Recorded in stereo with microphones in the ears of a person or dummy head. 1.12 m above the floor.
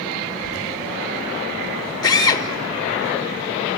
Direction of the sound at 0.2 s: 50° right (ahead or behind).